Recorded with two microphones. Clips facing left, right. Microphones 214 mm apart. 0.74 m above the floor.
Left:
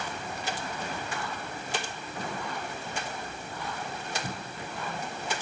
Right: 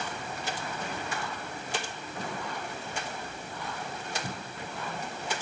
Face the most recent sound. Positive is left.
No sound to turn to.